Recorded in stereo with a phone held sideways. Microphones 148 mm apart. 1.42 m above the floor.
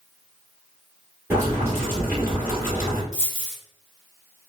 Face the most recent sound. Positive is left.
turn(degrees=25)  # may be behind; listen again after turning